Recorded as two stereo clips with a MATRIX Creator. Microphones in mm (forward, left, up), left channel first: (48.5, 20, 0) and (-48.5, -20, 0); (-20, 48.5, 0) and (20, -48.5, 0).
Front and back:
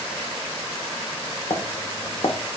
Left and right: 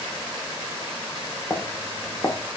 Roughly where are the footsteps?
Ahead left.